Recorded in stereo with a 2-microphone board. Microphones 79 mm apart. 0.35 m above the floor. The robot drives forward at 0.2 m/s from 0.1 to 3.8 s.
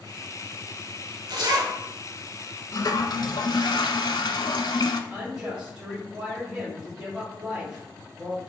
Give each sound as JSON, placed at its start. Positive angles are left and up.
{"t": 1.3, "sound": "a zipper", "side_deg": -65, "distance_m": 0.8}
{"t": 2.7, "sound": "a toilet flushing", "side_deg": 55, "distance_m": 0.5}
{"t": 5.1, "sound": "a woman speaking", "side_deg": -10, "distance_m": 1.6}